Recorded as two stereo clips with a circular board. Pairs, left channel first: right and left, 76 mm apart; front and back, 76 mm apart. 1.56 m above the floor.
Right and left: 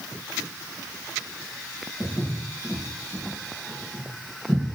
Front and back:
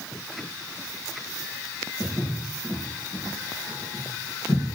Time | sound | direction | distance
2.0 | footsteps | 45° right | 2.5 m